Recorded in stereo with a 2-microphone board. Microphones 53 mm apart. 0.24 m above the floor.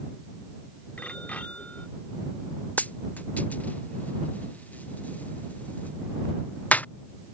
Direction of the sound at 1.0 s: 25° left (ahead or behind).